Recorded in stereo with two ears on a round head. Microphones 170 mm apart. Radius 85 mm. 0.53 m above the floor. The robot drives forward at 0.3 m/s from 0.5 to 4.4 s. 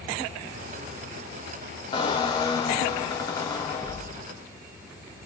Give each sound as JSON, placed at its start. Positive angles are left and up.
{"t": 1.9, "sound": "a squeak", "side_deg": 25, "distance_m": 1.0}